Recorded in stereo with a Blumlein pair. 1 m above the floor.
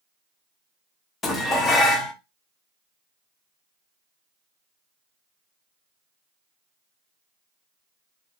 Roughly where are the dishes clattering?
Ahead.